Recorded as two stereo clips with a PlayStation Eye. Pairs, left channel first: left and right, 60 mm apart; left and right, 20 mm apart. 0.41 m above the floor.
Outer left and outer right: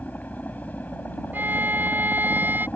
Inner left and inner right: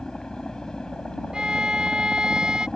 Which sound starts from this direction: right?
A violin, at 1.3 s.